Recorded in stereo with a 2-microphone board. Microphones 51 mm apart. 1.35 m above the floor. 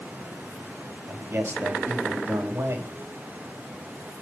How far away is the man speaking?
About 3.5 m.